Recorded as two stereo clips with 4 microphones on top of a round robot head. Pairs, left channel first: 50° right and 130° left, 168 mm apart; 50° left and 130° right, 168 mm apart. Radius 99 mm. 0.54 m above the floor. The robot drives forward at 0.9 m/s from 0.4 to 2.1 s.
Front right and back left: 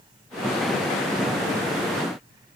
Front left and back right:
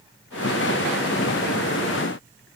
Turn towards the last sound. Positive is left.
No sound to turn to.